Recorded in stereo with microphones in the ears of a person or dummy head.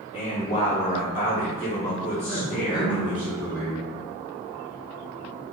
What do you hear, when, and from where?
0.1 s a man speaking: 40° left (ahead or behind), 0.9 m
2.3 s a man speaking: 10° right (ahead or behind), 1.4 m